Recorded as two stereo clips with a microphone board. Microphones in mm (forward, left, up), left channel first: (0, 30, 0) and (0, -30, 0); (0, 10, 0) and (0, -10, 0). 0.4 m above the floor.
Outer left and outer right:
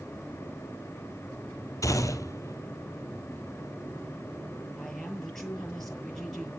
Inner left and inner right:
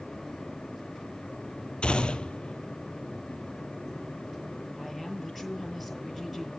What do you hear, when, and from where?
1.8 s a gunshot: 65° left (ahead or behind), 1.5 m
4.8 s a woman speaking: 5° left (ahead or behind), 7 m